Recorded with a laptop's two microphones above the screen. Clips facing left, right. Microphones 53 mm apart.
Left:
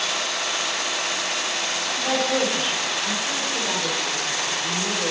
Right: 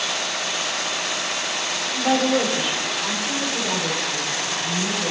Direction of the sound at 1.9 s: 20° right (ahead or behind).